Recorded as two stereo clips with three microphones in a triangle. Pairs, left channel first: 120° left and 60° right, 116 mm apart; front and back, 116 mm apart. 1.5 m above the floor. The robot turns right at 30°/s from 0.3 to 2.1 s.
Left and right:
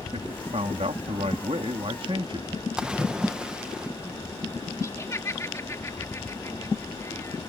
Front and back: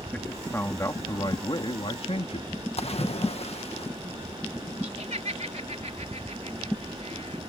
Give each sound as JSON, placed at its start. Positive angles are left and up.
{"t": 0.1, "sound": "a man speaking", "azimuth_deg": -80}
{"t": 2.8, "sound": "a splash", "azimuth_deg": 25}
{"t": 4.8, "sound": "laughter", "azimuth_deg": -175}